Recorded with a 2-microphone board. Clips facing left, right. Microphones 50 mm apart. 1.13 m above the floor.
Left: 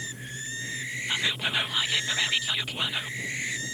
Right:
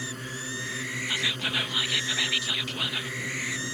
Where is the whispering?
10° left (ahead or behind).